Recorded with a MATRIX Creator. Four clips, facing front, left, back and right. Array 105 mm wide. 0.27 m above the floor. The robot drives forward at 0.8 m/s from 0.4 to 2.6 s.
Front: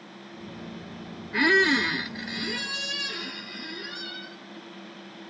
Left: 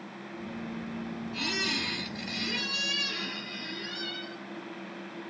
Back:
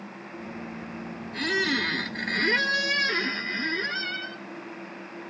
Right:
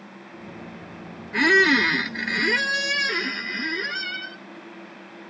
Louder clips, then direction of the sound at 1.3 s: Right 18 dB, front 6 dB; 55° right.